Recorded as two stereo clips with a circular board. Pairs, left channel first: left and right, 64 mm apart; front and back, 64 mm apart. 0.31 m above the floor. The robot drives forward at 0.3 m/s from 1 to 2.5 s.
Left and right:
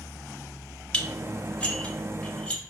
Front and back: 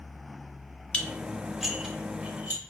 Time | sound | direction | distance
0.9 | dishes clattering | 50° left | 0.6 m